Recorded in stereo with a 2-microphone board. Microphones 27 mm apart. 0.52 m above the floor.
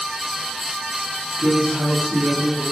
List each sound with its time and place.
1.4 s a woman speaking: 45° right (ahead or behind), 3 m; by 2.6 s 40° right (ahead or behind), 4 m